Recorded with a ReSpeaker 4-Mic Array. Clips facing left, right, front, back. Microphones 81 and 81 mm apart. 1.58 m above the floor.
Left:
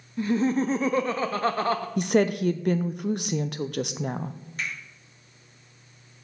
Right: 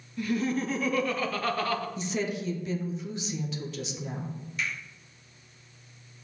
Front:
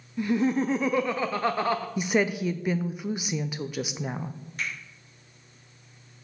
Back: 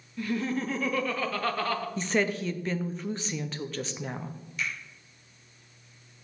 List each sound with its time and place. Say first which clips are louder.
0.2 s laughter: left 5 dB, front 6 dB; 55° left, 0.5 m
2.0 s a woman speaking: left 9 dB, front 1 dB; 75° left, 0.5 m
4.6 s a finger snap: even, even; 45° left, 5 m